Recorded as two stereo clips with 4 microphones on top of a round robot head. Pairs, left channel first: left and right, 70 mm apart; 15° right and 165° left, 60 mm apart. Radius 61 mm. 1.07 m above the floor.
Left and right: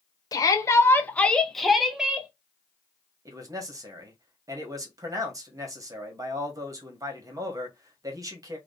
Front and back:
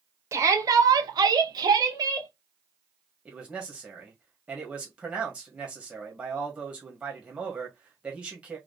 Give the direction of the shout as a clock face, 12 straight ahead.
8 o'clock.